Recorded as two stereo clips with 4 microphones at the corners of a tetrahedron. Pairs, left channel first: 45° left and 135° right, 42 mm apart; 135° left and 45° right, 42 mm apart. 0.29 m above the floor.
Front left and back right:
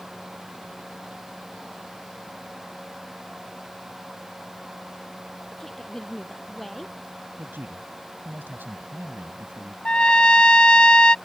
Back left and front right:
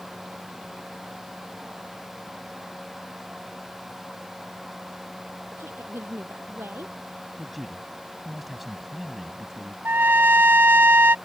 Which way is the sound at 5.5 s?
30° right.